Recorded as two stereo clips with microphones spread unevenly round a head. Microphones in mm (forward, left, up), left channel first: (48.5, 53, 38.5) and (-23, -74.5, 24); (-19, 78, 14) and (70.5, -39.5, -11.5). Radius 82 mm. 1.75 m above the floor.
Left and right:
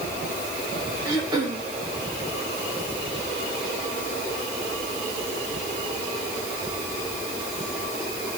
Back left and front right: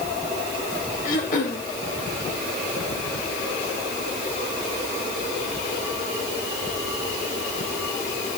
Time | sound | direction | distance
1.1 | throat clearing | 175° left | 3 m